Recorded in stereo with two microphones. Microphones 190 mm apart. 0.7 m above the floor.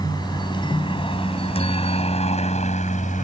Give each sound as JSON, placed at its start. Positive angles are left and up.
{"t": 0.0, "sound": "a helicopter", "side_deg": 20}